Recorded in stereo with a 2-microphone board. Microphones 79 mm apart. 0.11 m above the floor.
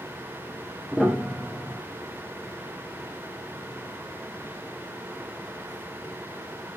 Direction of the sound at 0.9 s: Centre (ahead or behind).